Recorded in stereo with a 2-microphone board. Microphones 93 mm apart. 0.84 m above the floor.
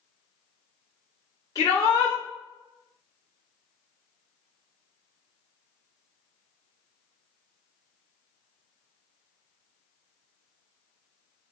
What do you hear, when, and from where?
1.6 s a shout: 40° left (ahead or behind), 1.6 m